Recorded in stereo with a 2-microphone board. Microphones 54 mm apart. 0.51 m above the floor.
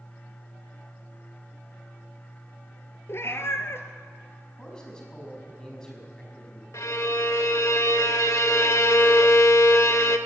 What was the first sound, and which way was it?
A cat meowing, 50° left (ahead or behind).